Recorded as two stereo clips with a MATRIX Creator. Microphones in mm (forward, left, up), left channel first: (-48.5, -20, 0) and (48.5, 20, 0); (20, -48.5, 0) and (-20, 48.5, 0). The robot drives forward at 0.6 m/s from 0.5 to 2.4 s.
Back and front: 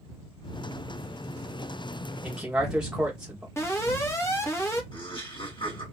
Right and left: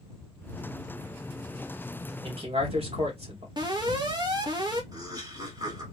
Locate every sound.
2.2 s a man speaking: 100° left, 2.5 m; by 3.5 s 105° left, 2.5 m
3.6 s an alarm: 145° left, 1.6 m
4.9 s laughter: 160° left, 3.5 m